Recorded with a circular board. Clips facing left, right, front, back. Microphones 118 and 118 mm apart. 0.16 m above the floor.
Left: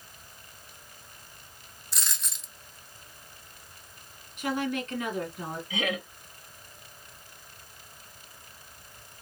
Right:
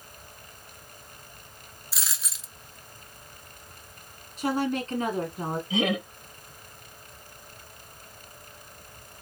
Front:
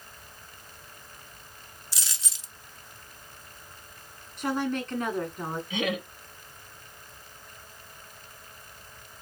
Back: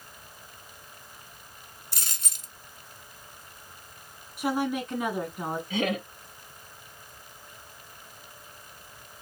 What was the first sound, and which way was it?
A dropped coin, 175° right.